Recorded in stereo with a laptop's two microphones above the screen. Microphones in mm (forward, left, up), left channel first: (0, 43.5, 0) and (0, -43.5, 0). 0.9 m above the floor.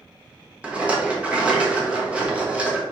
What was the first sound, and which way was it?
A rattle, 15° right (ahead or behind).